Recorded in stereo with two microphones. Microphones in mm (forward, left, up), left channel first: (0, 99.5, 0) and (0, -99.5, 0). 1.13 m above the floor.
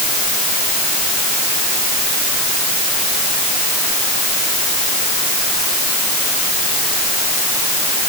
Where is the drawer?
No drawer in this recording.